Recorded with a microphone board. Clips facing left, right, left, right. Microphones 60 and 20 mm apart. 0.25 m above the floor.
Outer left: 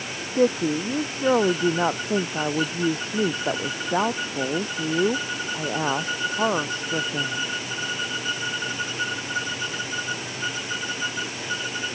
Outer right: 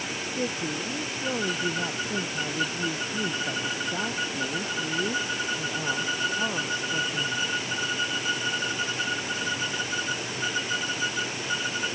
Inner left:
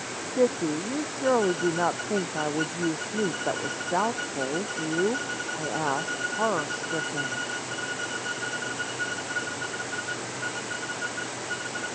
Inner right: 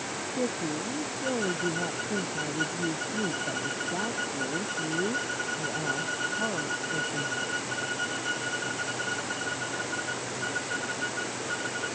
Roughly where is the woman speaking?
Left.